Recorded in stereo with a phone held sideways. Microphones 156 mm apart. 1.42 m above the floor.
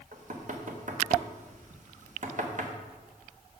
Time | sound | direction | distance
0.1 | knocking | 55° right (ahead or behind) | 0.9 m